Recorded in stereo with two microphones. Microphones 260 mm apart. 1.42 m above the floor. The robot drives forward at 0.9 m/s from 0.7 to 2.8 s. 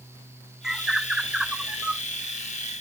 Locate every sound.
0.6 s a bird: centre (ahead or behind); by 2.0 s 5° right (ahead or behind)